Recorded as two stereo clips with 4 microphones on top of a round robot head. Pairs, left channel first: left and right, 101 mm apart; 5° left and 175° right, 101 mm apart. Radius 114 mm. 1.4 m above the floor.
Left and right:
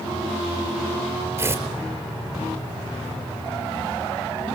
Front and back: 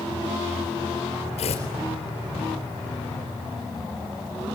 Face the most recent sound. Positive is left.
turn(degrees=-30)